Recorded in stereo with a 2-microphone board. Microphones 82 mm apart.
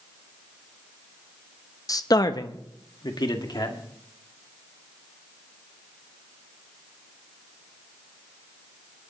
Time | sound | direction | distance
1.9 | a man speaking | 45° left (ahead or behind) | 0.8 m